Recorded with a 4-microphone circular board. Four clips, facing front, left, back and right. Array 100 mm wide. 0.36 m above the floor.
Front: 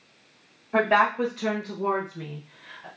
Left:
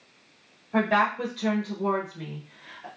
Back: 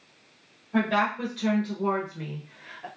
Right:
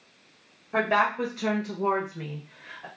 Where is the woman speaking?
25° right, 1.3 m; by 2.9 s 145° right, 1.2 m.